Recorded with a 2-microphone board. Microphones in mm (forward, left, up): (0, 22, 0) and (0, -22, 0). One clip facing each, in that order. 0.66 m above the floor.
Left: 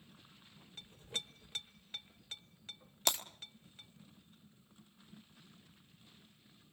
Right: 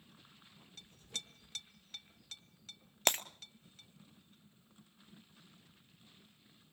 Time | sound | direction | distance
0.8 | a clink | 20° left (ahead or behind) | 1.2 m
3.1 | breaking glass | 45° right (ahead or behind) | 0.9 m